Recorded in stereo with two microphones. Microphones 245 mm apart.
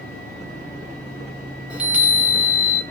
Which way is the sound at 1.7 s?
5° right (ahead or behind).